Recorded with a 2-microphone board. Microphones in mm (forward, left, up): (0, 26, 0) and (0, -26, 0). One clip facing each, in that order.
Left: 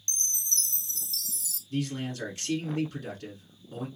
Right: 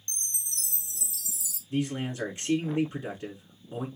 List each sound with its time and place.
0.1 s a chime: 10° right (ahead or behind), 0.8 m
1.7 s a man speaking: 25° right (ahead or behind), 1.3 m